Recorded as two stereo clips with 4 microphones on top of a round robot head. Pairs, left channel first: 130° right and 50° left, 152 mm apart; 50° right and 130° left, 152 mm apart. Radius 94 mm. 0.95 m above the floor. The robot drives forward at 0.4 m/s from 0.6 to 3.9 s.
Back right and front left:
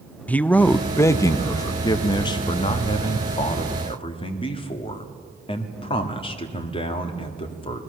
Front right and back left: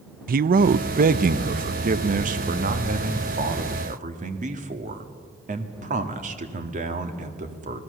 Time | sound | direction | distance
0.3 | a man speaking | 150° left | 0.6 m